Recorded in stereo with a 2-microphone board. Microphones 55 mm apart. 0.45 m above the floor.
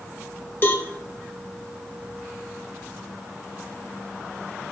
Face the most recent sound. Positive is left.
turn(degrees=40)  # may be behind; listen again after turning